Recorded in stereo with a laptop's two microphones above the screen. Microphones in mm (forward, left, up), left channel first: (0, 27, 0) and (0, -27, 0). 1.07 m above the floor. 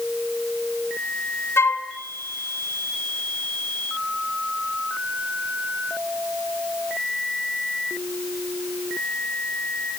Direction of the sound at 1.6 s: 55° left (ahead or behind).